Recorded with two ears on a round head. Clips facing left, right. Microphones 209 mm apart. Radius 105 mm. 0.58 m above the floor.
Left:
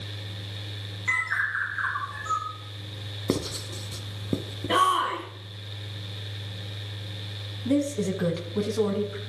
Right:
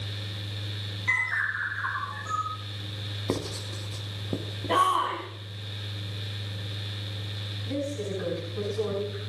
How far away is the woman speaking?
About 4.5 m.